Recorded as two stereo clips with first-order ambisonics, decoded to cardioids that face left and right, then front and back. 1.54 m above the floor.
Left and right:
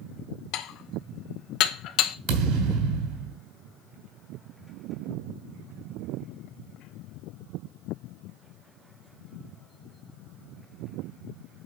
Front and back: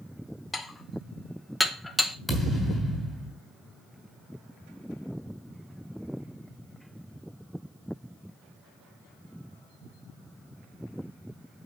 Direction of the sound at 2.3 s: 90° right.